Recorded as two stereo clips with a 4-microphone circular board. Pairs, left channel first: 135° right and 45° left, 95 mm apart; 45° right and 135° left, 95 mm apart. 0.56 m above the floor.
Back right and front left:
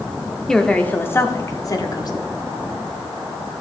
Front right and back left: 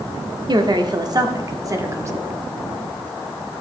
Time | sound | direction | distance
0.5 | a woman speaking | 140° left | 0.9 m